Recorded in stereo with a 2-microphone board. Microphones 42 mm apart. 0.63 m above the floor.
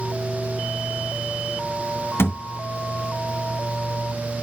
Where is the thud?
80° left, 2.5 m.